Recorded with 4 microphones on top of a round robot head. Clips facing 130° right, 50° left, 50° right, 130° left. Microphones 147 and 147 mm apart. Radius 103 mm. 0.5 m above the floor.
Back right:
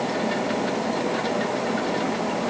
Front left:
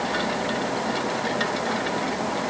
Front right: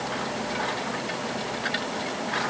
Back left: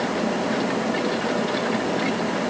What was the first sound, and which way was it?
Only background noise.